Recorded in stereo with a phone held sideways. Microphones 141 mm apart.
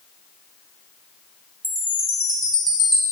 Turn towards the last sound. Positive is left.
turn(degrees=-35)  # may be behind; listen again after turning